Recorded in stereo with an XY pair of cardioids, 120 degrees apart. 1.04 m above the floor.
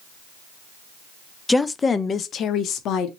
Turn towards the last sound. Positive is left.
turn(degrees=75)